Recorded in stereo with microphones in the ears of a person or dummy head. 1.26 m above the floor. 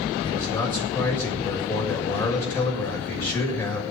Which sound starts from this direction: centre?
A man speaking, at 0.2 s.